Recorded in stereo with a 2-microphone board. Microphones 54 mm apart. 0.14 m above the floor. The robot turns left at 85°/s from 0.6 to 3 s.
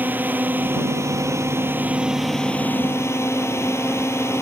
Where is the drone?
40° right; by 4.4 s 115° left.